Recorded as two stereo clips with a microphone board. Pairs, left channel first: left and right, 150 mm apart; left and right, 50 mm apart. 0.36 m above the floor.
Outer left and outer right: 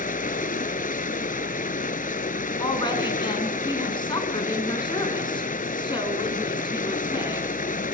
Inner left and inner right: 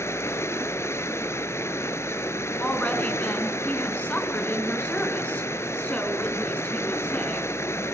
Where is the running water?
65° left (ahead or behind), 1.0 m.